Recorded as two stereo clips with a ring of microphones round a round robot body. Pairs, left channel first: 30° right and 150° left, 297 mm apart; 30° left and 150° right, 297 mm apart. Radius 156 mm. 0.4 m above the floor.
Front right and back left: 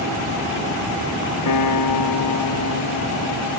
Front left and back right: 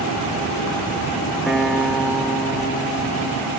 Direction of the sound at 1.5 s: 60° right.